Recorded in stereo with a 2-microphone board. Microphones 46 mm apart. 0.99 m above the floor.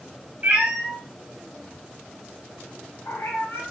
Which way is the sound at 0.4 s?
30° right (ahead or behind).